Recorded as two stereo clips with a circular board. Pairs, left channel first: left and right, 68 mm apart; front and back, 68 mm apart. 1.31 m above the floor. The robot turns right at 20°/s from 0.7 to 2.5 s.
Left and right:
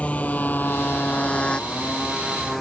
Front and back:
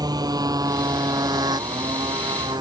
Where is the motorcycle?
160° left; by 2.6 s straight behind.